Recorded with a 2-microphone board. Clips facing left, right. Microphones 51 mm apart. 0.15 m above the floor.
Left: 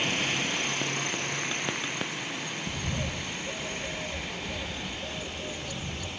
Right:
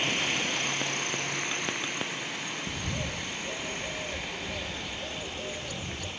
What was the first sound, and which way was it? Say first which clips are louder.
A bird: left 1 dB; 20° right (ahead or behind).